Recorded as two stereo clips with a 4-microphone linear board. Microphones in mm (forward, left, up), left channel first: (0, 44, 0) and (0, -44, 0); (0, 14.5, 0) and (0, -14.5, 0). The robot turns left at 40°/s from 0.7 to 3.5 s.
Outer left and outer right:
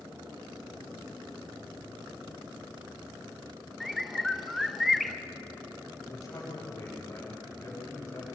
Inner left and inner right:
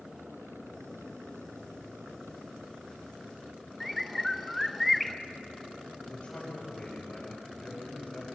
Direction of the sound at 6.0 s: 40° left (ahead or behind).